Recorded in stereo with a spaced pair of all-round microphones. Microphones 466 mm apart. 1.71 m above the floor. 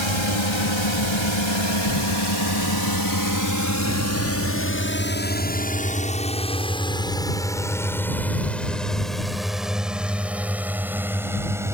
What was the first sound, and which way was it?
A drone, 70° left (ahead or behind).